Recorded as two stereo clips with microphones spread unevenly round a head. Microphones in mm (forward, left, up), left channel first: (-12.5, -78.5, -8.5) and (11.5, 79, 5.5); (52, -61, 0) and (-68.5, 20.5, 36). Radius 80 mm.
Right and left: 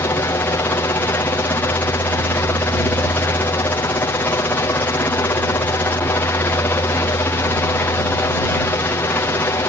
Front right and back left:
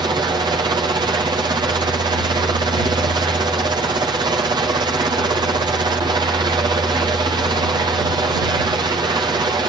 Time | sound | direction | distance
0.0 | a helicopter | 155° right | ?